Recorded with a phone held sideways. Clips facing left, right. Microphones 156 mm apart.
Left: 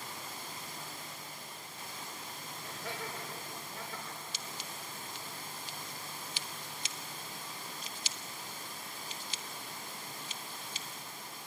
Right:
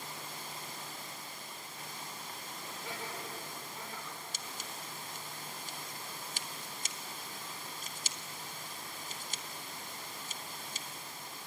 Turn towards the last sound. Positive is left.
turn(degrees=-45)  # may be behind; listen again after turning